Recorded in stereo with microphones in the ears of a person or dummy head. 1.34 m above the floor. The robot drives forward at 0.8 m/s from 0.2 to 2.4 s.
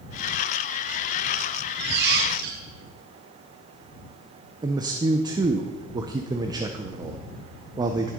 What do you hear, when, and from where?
1.8 s a squeak: 60° right (ahead or behind), 1.2 m
4.6 s a man speaking: 25° right (ahead or behind), 0.6 m